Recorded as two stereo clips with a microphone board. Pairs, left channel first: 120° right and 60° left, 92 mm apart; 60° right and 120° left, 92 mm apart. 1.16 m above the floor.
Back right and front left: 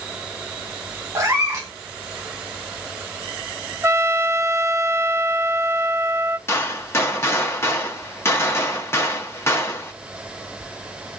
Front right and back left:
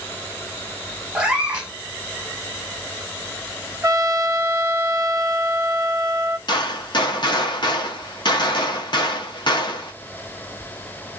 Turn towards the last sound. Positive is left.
turn(degrees=-65)